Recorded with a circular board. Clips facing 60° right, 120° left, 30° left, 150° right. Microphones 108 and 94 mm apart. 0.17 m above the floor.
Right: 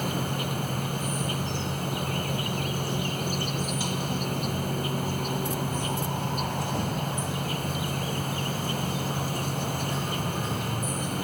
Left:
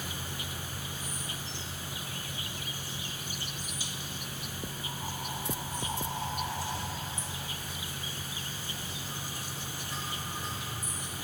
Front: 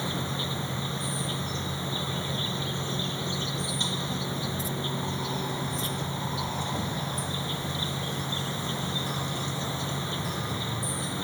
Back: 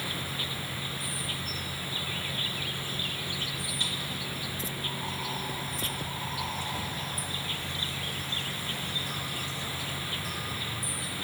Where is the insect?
35° right.